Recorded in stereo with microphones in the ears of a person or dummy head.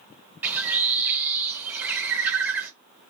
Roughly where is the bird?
Centre.